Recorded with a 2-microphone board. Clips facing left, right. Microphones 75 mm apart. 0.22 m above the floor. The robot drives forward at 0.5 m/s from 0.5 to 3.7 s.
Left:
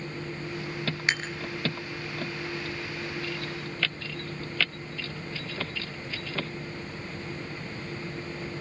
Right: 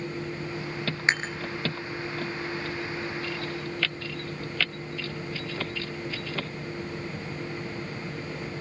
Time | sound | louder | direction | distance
1.1 | dishes clattering | right 4 dB | 30° right (ahead or behind) | 2 m